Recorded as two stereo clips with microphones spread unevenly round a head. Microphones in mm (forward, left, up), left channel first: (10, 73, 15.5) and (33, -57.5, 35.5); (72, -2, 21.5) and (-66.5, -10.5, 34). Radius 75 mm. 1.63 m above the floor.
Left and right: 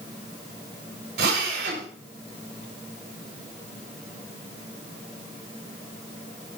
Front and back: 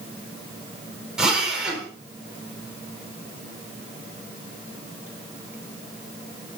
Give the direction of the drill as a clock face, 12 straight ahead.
3 o'clock.